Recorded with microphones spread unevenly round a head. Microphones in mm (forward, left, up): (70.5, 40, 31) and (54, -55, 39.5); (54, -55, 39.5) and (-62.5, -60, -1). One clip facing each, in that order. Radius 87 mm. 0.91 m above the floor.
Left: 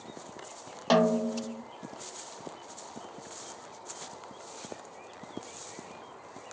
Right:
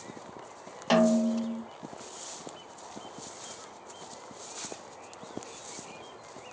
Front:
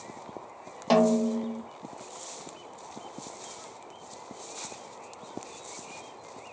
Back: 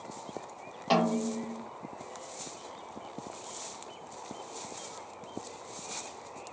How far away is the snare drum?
About 1.0 m.